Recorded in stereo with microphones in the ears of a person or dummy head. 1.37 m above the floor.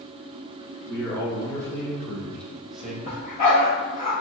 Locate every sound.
0.9 s a man speaking: 15° left (ahead or behind), 2 m; by 3.0 s 5° right (ahead or behind), 1.1 m
3.0 s a dog barking: 35° left (ahead or behind), 1.5 m